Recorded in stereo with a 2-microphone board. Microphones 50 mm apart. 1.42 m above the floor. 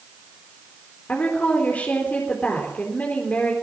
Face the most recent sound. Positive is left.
turn(degrees=30)  # may be behind; listen again after turning